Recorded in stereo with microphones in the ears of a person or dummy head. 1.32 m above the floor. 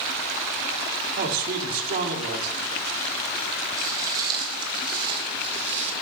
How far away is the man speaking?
About 2.5 m.